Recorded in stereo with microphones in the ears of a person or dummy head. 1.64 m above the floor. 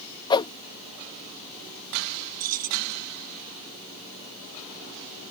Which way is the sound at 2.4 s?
40° right (ahead or behind).